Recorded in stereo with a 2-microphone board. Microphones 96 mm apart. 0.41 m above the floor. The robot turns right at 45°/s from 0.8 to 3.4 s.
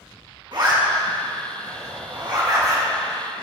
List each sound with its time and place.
0.5 s a zipper: 55° right (ahead or behind), 2.5 m; by 2.9 s 30° right (ahead or behind), 2.5 m